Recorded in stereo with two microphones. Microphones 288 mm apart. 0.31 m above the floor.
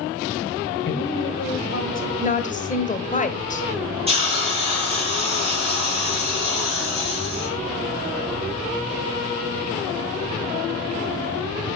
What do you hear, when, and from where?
0.8 s a woman speaking: 40° left (ahead or behind), 2.0 m; by 2.1 s 45° left (ahead or behind), 1.8 m
2.2 s a woman speaking: 25° left (ahead or behind), 1.0 m
4.1 s a hiss: 20° right (ahead or behind), 4 m